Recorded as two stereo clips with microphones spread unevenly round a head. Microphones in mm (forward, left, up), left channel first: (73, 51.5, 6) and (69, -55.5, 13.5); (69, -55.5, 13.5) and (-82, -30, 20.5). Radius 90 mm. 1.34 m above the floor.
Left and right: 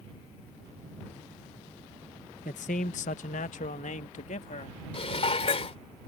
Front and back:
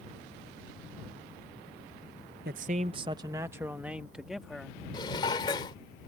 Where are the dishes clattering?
60° left.